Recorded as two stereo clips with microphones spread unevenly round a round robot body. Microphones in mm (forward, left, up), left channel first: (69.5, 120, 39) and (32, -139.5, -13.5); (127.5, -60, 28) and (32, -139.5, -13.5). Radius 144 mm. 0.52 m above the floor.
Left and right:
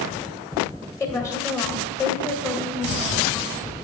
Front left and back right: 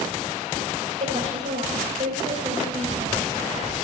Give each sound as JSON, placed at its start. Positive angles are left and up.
{"t": 1.0, "sound": "a woman speaking", "azimuth_deg": 165, "distance_m": 2.5}